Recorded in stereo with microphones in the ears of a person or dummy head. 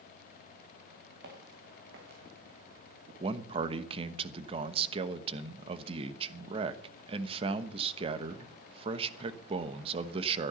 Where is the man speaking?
40° right (ahead or behind), 1.0 m.